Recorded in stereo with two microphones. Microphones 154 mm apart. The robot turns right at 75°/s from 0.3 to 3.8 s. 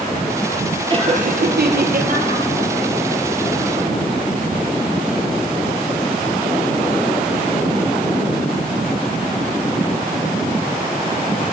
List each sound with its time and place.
0.9 s laughter: 150° right, 4.5 m; by 2.4 s 35° right, 4.5 m